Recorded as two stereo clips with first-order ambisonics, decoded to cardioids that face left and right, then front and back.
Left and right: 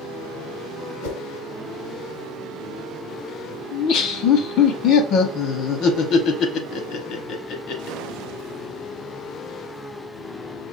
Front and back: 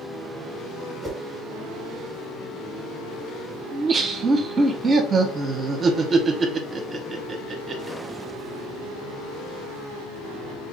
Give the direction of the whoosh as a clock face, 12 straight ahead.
9 o'clock.